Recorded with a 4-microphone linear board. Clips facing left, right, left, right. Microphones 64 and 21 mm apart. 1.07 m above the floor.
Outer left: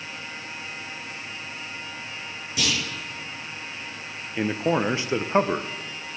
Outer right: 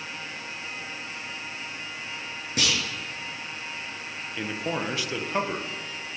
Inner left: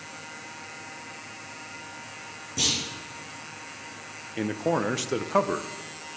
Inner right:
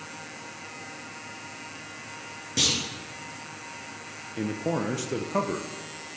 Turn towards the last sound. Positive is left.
turn(degrees=25)  # may be behind; listen again after turning